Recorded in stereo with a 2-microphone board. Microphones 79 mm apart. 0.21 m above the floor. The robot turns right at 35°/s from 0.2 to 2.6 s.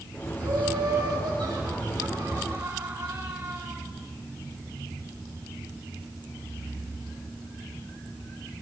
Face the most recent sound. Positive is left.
turn(degrees=-60)